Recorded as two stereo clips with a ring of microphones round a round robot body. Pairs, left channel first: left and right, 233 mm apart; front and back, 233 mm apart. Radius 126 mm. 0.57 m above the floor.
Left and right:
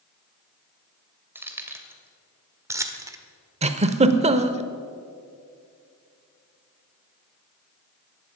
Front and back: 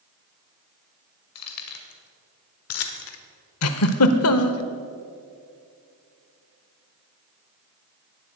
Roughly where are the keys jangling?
Ahead.